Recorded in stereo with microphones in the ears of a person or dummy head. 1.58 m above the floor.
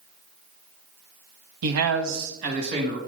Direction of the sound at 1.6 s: 75° right (ahead or behind).